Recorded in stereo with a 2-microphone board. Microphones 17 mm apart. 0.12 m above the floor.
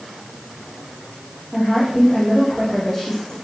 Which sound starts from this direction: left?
A woman speaking, at 1.5 s.